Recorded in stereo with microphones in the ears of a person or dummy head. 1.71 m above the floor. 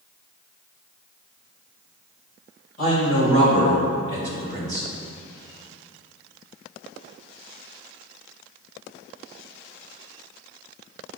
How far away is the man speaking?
About 2.5 m.